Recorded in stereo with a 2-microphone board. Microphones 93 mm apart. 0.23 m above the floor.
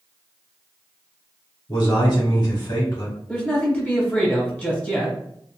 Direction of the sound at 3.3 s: 15° left (ahead or behind).